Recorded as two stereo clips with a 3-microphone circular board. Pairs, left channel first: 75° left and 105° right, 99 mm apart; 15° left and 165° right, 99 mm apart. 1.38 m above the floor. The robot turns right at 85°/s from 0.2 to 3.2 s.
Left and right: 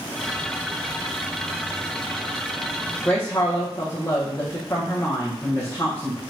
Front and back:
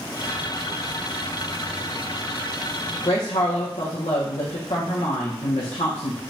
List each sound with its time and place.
3.0 s a woman speaking: 5° right, 0.9 m; by 6.2 s 5° left, 0.9 m